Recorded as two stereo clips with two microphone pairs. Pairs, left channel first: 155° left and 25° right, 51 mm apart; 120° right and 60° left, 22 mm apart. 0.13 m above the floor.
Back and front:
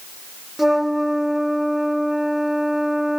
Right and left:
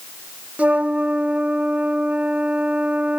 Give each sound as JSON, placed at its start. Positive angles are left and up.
{"t": 0.6, "sound": "a flute", "azimuth_deg": 65}